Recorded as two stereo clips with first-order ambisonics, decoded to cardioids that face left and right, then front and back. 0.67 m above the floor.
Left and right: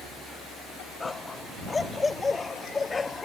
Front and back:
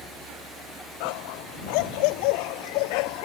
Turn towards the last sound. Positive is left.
turn(degrees=15)